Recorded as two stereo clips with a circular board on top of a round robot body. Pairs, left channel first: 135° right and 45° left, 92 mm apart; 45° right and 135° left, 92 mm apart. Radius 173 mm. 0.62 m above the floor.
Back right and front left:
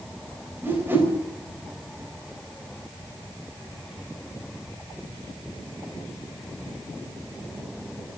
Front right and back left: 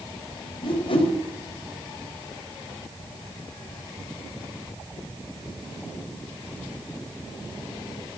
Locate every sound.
0.6 s a whoosh: 20° right, 3.5 m